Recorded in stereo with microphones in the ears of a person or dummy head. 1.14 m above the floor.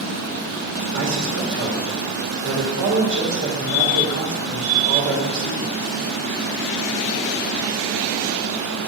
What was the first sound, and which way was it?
A man speaking, 65° right (ahead or behind).